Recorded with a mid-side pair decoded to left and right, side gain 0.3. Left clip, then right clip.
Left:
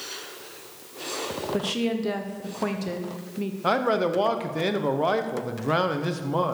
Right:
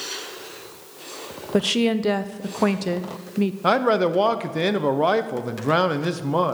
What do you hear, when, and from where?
1.5 s a woman speaking: 70° right, 0.9 m
3.6 s a man speaking: 45° right, 1.1 m